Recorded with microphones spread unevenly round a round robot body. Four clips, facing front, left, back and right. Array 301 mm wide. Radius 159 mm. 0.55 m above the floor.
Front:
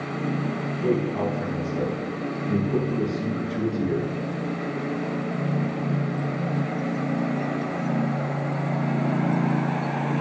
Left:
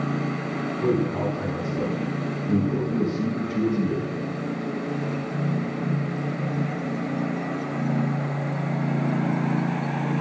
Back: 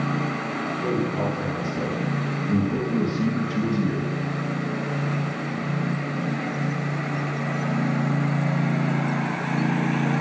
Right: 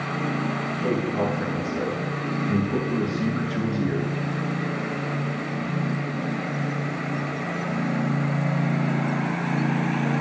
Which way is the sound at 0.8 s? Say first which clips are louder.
Left 1 dB, front 2 dB; 95° left.